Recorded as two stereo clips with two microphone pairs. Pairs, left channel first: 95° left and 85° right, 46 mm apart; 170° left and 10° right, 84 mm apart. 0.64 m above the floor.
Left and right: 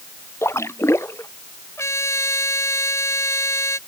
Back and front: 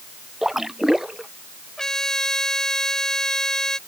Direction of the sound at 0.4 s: 75° left.